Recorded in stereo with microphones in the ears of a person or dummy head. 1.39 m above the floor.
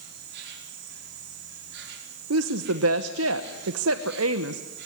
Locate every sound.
0.0 s an insect: 70° right (ahead or behind), 5 m
2.3 s a woman speaking: 75° right (ahead or behind), 0.9 m